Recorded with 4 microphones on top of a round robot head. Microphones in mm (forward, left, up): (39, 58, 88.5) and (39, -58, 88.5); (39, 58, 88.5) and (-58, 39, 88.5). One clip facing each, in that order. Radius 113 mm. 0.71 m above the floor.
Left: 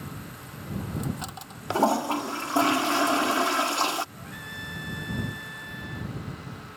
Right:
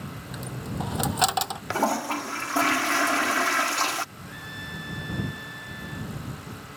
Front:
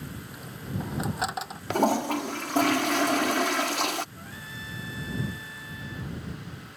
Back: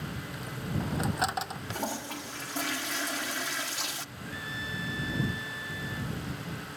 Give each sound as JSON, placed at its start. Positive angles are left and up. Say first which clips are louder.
{"t": 0.3, "sound": "a dropped coin", "louder": "right 6 dB, back 1 dB", "azimuth_deg": -75}
{"t": 1.7, "sound": "a toilet flushing", "louder": "left 3 dB, front 14 dB", "azimuth_deg": 25}
{"t": 4.2, "sound": "a trumpet", "louder": "even, back 3 dB", "azimuth_deg": 50}